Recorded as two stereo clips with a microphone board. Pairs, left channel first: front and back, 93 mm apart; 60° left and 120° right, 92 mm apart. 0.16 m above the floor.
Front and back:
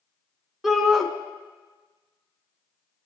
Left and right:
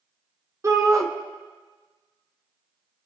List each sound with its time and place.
0.6 s a shout: 95° right, 1.5 m